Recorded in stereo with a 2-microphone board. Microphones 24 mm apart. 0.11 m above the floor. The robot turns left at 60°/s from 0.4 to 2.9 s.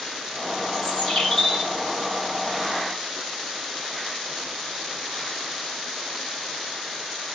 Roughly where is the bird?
Behind left.